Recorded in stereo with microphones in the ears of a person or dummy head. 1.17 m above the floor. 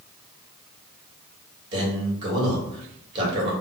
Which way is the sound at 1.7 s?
25° right (ahead or behind).